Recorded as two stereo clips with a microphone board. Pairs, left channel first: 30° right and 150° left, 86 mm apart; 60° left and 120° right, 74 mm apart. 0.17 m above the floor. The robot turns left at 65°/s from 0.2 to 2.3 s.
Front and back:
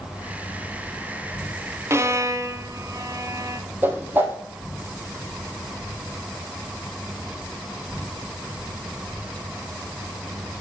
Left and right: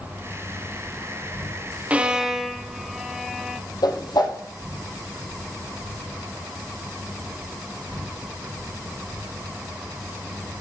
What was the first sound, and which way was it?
An insect, straight ahead.